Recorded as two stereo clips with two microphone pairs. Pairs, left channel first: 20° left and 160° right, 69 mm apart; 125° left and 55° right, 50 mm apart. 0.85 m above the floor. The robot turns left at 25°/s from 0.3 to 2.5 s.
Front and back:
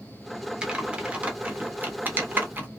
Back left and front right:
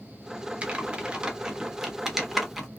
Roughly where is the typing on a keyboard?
Right.